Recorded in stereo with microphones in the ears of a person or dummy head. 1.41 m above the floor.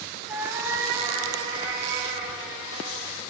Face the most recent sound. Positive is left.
turn(degrees=-30)  # may be behind; listen again after turning